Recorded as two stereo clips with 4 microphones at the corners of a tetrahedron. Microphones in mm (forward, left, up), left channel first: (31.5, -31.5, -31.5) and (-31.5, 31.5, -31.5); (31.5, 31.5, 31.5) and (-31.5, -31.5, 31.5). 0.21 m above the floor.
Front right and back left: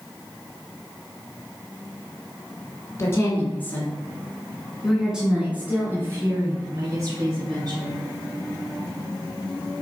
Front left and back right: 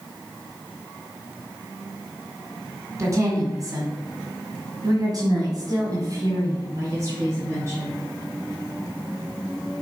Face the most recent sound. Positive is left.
turn(degrees=170)